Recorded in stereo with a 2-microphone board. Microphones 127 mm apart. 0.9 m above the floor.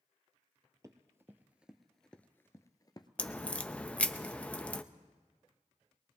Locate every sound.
0.8 s running footsteps: 25° right (ahead or behind), 1.2 m; by 3.1 s 35° left (ahead or behind), 1.0 m
3.2 s a crack: 10° left (ahead or behind), 0.5 m